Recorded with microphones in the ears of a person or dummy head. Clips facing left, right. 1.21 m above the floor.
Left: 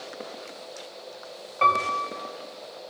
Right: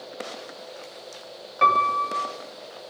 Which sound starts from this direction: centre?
A piano, at 1.6 s.